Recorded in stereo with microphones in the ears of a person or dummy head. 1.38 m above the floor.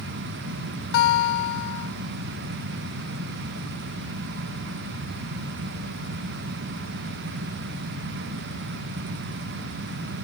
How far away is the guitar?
About 0.8 m.